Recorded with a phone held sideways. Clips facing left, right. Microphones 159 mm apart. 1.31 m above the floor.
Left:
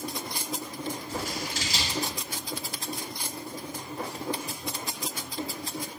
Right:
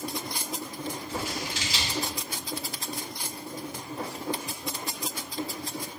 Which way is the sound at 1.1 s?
45° left (ahead or behind).